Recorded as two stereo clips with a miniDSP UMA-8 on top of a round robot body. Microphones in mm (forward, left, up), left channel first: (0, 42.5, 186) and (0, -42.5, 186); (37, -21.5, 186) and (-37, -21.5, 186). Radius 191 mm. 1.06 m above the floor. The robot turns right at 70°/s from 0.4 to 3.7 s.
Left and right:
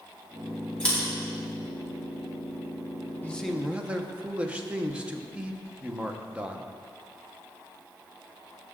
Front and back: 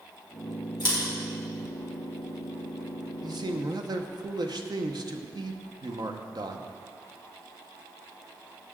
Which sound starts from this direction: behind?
A man speaking, at 3.2 s.